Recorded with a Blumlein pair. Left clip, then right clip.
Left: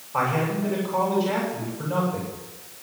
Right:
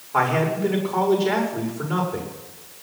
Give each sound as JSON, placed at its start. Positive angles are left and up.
{"t": 0.1, "sound": "a man speaking", "azimuth_deg": -65, "distance_m": 7.0}